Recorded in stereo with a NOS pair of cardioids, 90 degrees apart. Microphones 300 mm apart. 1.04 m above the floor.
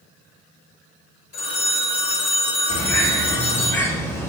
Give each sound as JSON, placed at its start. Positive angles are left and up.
{"t": 1.3, "sound": "a phone ringing", "azimuth_deg": 35, "distance_m": 3.0}
{"t": 2.7, "sound": "a bird", "azimuth_deg": 10, "distance_m": 3.5}